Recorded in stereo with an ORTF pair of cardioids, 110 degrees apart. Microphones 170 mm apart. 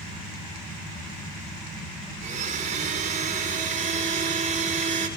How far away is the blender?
About 4.5 m.